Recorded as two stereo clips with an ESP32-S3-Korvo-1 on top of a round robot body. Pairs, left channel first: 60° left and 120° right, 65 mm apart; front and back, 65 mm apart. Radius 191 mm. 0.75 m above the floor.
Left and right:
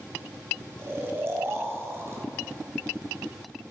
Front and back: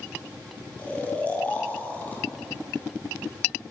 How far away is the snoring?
About 1.7 m.